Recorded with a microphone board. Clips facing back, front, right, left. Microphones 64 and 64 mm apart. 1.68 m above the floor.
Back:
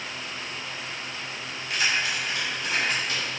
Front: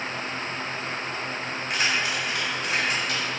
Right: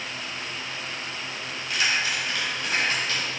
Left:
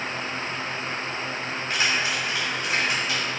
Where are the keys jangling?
35° left, 2.5 m; by 3.2 s 15° left, 3.5 m.